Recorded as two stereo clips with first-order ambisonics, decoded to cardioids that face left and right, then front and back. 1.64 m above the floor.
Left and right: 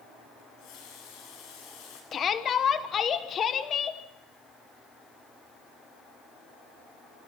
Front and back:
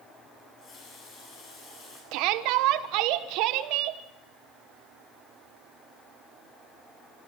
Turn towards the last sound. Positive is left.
turn(degrees=155)